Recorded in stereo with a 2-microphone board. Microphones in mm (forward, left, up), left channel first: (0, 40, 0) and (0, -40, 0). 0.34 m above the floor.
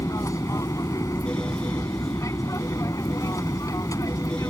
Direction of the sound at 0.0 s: 45° left (ahead or behind).